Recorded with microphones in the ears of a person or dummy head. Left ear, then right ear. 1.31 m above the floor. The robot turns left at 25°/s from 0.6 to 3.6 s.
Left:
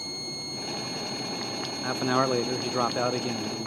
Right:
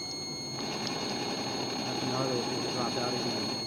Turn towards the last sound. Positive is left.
turn(degrees=80)